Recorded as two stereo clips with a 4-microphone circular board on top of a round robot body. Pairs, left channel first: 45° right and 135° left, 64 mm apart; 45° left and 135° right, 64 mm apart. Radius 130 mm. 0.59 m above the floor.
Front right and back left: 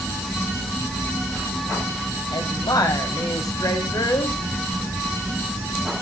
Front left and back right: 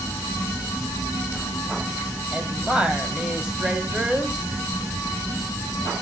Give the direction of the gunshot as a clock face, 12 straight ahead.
I don't hear a gunshot.